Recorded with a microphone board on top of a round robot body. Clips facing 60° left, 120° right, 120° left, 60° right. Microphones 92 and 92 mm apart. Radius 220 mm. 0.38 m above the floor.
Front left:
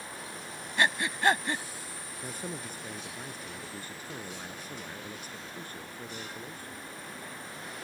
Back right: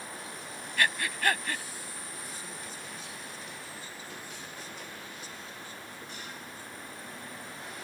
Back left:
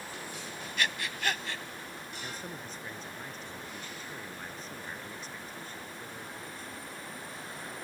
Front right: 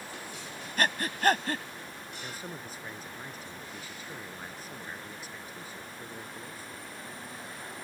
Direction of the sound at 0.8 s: 10° right.